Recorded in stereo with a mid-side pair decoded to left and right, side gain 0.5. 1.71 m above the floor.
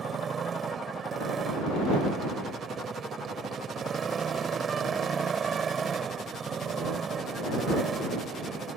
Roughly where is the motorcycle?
Ahead right.